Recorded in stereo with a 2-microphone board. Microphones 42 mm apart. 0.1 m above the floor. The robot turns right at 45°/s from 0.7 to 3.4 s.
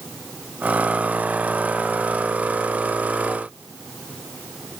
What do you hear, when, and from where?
Only background noise.